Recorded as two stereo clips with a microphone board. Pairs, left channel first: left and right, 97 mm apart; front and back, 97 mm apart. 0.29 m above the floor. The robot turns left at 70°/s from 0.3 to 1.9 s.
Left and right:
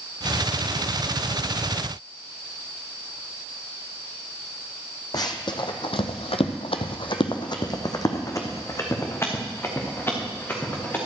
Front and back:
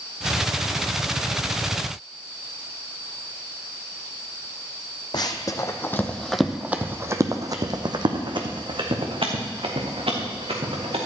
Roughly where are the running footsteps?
Ahead left.